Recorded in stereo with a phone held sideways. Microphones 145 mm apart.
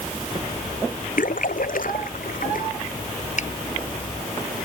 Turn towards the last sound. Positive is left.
turn(degrees=60)  # may be behind; listen again after turning